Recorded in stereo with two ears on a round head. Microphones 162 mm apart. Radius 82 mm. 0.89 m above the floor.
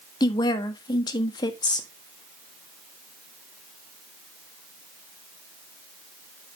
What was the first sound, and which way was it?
A woman speaking, 25° left (ahead or behind).